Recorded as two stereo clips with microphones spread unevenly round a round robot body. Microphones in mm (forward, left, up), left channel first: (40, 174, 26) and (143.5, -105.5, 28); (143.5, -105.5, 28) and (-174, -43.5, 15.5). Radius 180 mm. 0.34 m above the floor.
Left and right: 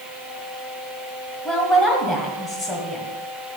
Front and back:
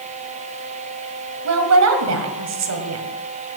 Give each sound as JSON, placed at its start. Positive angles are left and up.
{"t": 1.4, "sound": "a woman speaking", "azimuth_deg": -160, "distance_m": 1.8}